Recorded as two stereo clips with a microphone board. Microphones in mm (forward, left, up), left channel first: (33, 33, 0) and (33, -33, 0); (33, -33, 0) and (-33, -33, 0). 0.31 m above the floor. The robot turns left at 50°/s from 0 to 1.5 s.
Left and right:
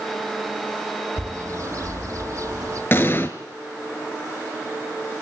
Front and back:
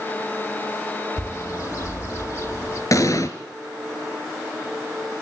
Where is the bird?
30° right, 5 m; by 2.8 s 45° right, 5 m.